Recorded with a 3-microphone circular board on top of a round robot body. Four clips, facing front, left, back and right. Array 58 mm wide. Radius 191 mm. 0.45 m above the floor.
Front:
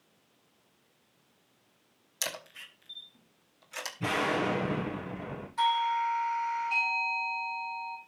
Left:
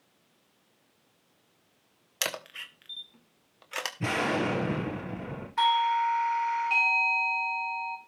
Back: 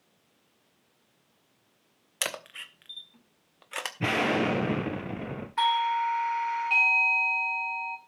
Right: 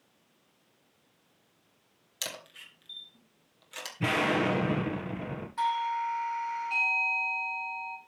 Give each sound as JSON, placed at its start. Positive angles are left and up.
{"t": 2.2, "sound": "a camera shutter", "azimuth_deg": 140, "distance_m": 2.0}
{"t": 4.0, "sound": "an explosion", "azimuth_deg": -155, "distance_m": 3.5}
{"t": 5.6, "sound": "a doorbell", "azimuth_deg": 150, "distance_m": 3.5}